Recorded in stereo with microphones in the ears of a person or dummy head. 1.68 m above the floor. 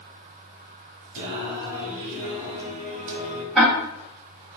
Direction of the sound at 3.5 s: Centre (ahead or behind).